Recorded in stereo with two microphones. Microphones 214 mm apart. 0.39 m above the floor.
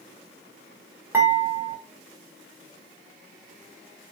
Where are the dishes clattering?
10° right (ahead or behind), 0.8 m.